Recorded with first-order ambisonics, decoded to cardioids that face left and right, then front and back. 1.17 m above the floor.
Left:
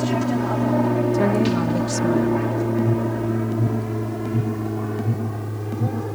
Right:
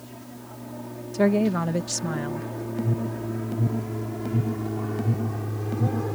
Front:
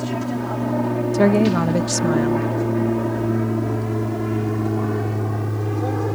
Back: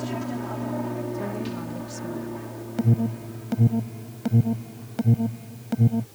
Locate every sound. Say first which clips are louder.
0.0 s an aircraft: left 20 dB, front 6 dB; 70° left; by 6.2 s straight ahead
1.1 s a woman speaking: left 3 dB, front 14 dB; 5° right
2.8 s an alarm: left 8 dB, front 7 dB; 175° left